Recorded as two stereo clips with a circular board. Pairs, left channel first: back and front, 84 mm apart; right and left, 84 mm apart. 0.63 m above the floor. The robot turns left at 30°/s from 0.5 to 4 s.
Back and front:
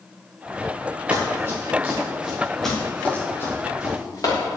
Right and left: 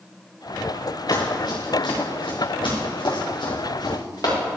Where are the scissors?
No scissors in this recording.